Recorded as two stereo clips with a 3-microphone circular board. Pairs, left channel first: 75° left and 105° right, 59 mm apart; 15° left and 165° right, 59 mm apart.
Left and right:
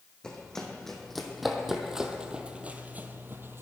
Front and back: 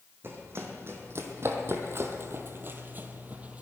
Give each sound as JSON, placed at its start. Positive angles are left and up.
{"t": 0.2, "sound": "running footsteps", "azimuth_deg": 150, "distance_m": 2.5}